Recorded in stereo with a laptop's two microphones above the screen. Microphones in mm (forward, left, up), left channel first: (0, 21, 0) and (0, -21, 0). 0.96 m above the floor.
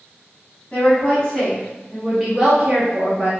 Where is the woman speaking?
35° left (ahead or behind), 1.1 m; by 3.3 s 40° right (ahead or behind), 0.9 m.